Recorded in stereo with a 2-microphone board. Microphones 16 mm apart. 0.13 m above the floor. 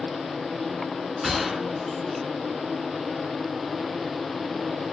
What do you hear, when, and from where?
1.2 s a gunshot: 15° right (ahead or behind), 0.8 m